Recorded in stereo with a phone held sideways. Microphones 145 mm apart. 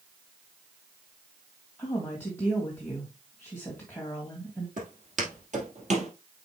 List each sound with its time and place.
1.8 s a woman speaking: 10° left (ahead or behind), 2 m
4.8 s footsteps: 65° right (ahead or behind), 3 m; by 6.1 s 55° right (ahead or behind), 2 m